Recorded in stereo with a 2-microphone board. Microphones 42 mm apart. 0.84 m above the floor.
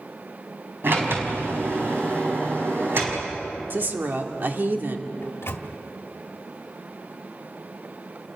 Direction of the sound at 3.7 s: 55° right (ahead or behind).